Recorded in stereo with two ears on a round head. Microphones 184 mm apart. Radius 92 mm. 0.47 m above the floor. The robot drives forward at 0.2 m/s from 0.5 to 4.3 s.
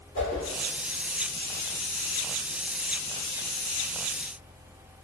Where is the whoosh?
40° left (ahead or behind), 1.6 m.